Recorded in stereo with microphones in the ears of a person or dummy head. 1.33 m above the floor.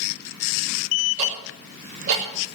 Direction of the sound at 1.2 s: 45° right (ahead or behind).